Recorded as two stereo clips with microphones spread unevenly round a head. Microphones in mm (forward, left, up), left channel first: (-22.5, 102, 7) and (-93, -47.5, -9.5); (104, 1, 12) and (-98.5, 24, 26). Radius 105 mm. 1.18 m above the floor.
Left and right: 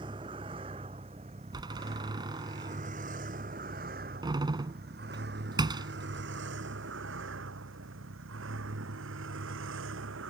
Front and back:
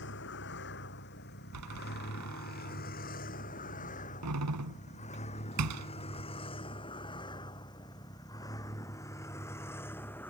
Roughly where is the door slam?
Behind.